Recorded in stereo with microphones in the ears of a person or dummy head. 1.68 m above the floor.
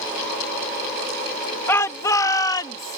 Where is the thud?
I don't hear a thud.